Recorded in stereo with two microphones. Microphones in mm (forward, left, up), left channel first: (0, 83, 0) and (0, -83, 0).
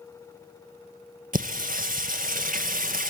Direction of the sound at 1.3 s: 60° right (ahead or behind).